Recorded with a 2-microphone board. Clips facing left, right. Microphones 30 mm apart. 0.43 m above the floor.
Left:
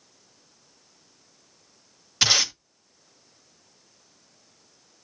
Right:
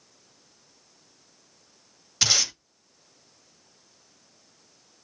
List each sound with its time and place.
2.2 s tape being pulled: 15° left (ahead or behind), 2.0 m